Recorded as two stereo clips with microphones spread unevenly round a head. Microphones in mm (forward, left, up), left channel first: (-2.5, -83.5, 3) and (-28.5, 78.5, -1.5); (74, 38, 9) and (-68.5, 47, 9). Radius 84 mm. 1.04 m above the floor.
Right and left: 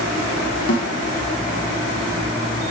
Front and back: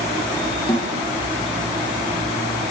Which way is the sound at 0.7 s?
70° right.